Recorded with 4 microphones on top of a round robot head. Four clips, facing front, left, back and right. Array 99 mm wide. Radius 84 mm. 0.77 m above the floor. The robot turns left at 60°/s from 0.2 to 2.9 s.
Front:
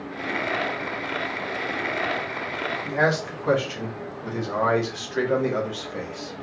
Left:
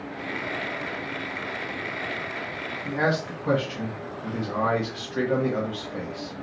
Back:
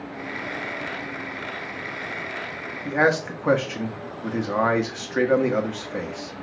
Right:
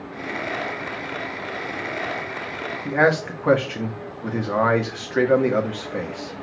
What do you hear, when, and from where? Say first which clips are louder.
2.9 s a man speaking: right 6 dB, back 3 dB; 120° right, 1.6 m